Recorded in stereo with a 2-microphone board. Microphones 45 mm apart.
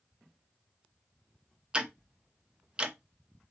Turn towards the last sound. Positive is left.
turn(degrees=-20)  # may be behind; listen again after turning